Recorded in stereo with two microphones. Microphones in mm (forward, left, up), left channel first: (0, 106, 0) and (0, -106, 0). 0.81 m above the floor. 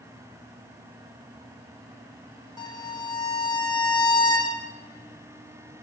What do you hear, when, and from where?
2.6 s a violin: 15° left (ahead or behind), 0.9 m